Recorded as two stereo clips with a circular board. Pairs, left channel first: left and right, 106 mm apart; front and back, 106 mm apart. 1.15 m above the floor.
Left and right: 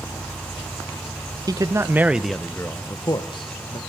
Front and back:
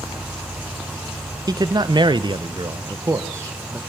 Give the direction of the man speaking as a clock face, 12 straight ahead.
5 o'clock.